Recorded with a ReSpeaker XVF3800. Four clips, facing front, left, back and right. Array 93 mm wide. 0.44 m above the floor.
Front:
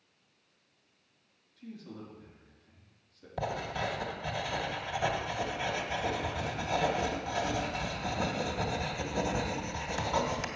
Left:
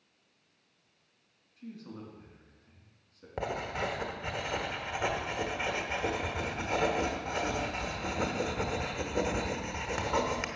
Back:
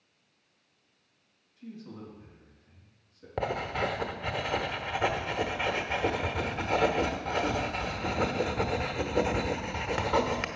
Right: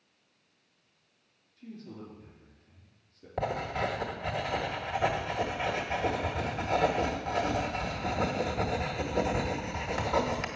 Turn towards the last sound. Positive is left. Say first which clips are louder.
# right 3 dB, back 4 dB
turn(degrees=170)